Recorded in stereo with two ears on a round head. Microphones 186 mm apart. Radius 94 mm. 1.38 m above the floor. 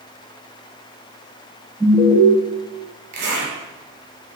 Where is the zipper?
55° right (ahead or behind), 2.5 m.